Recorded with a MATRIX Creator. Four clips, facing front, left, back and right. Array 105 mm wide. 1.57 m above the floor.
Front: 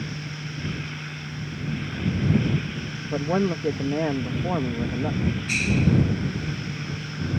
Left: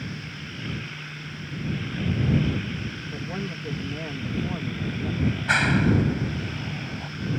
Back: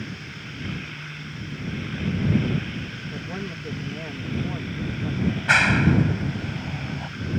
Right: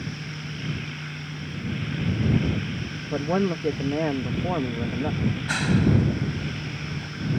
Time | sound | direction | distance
3.1 | a man speaking | 45° right | ?
5.2 | a clap | 160° left | ?